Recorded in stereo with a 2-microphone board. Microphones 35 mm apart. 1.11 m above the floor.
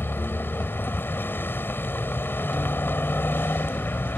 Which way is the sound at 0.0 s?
85° left.